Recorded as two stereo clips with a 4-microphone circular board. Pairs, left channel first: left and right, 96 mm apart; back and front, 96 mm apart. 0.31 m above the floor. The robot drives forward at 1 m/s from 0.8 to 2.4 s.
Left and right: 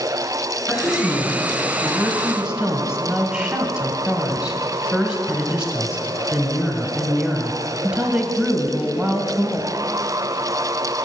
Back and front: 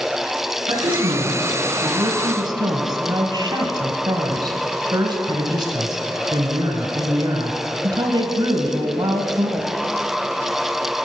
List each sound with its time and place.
0.7 s a woman speaking: 5° right, 3 m; by 9.7 s 10° right, 1.4 m